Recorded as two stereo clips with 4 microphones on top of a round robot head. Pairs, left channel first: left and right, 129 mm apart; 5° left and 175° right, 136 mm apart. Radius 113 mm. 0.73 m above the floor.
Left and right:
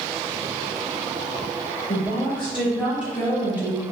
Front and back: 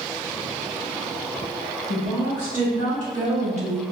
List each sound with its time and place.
1.9 s a woman speaking: 175° right, 1.9 m; by 3.8 s 155° right, 0.6 m